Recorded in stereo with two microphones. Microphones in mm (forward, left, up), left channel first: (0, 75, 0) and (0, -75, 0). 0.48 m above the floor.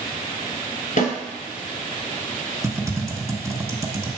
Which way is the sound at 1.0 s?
60° left (ahead or behind).